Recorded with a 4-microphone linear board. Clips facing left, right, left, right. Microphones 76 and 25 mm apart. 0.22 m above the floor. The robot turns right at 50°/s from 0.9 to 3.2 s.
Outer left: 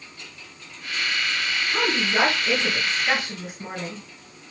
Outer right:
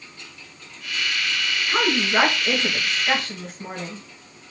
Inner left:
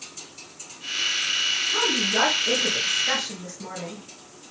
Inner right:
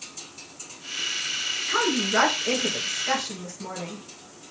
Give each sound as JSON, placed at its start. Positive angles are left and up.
{"t": 1.7, "sound": "a woman speaking", "azimuth_deg": -60, "distance_m": 4.0}